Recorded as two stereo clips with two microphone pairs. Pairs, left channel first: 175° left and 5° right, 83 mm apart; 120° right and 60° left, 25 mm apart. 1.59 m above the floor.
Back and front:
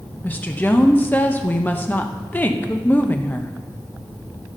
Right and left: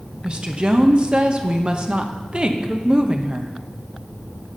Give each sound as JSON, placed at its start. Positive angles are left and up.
{"t": 0.2, "sound": "a woman speaking", "azimuth_deg": 110, "distance_m": 0.9}